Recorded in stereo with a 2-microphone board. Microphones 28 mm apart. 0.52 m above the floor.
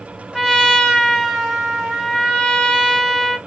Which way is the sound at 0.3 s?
10° right (ahead or behind).